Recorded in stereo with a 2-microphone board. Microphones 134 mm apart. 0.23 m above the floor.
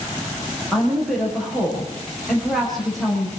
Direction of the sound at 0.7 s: Centre (ahead or behind).